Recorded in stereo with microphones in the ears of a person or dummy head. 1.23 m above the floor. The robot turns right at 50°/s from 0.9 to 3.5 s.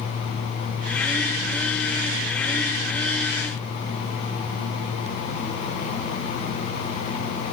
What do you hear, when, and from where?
Only background noise.